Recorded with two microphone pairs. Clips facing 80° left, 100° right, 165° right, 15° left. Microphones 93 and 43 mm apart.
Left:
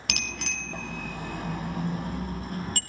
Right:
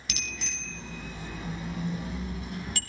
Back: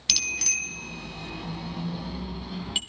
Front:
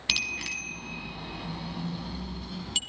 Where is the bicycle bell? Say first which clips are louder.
Left 5 dB, even; 85° left, 3 m; by 2.8 s 125° left, 3 m.